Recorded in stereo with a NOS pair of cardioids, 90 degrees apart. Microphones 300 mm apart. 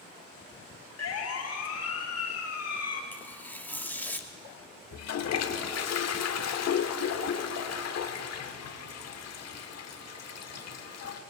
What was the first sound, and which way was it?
A siren, 55° left.